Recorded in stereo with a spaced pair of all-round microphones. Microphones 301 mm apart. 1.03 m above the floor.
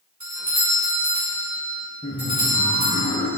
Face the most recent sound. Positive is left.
turn(degrees=15)  # may be behind; listen again after turning